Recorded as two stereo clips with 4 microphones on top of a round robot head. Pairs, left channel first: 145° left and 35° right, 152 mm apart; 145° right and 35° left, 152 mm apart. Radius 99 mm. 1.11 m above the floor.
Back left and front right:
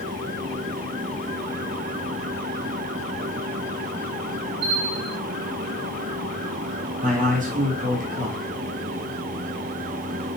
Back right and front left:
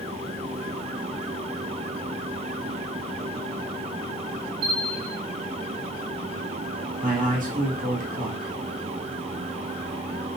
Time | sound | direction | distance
4.6 | a bell | 15° right | 4.5 m
7.0 | a man speaking | straight ahead | 2.5 m